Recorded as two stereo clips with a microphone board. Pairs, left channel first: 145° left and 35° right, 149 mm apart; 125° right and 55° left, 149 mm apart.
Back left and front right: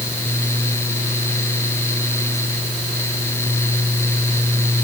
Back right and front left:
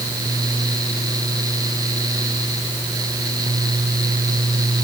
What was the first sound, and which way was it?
Only background noise.